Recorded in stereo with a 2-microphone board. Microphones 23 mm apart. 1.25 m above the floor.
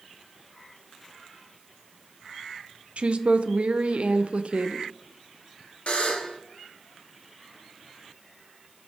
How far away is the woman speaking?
About 0.5 m.